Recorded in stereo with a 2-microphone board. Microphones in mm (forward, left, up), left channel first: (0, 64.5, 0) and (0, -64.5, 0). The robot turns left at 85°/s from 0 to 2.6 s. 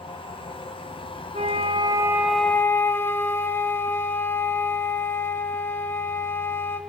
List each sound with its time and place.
1.3 s a flute: 95° right, 1.6 m; by 6.8 s 160° left, 1.6 m